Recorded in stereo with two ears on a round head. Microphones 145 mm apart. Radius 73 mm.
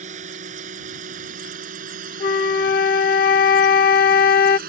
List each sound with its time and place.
0.0 s a drone: 50° right (ahead or behind); by 4.7 s 65° right (ahead or behind)
2.2 s a flute: 55° left (ahead or behind)